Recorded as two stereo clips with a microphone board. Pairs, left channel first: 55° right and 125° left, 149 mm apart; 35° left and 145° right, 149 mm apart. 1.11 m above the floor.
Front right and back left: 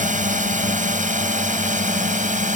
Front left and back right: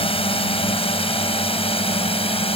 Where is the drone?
85° left.